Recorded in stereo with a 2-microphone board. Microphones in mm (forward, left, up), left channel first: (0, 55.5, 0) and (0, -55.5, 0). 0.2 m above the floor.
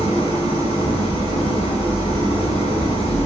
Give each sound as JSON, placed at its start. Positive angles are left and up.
{"t": 0.0, "sound": "an engine running", "side_deg": 70, "distance_m": 1.1}